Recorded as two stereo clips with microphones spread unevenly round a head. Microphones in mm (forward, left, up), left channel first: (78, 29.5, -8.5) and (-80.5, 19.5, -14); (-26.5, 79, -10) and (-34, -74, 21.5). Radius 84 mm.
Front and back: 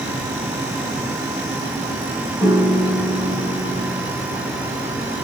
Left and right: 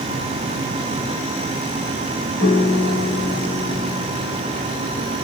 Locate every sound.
2.4 s a piano: 110° left, 1.1 m